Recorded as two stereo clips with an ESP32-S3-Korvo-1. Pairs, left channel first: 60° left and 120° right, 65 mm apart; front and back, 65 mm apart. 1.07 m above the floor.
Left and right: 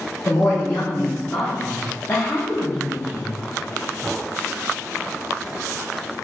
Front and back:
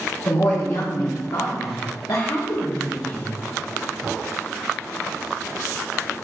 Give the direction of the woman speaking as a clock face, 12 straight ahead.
12 o'clock.